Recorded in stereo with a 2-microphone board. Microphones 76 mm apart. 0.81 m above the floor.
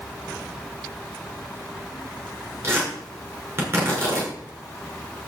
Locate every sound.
2.6 s tearing paper: 35° right (ahead or behind), 6.5 m